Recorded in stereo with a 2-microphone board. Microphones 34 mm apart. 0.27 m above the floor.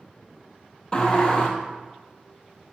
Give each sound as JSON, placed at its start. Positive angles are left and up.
{"t": 0.9, "sound": "a sliding door", "side_deg": 25, "distance_m": 1.4}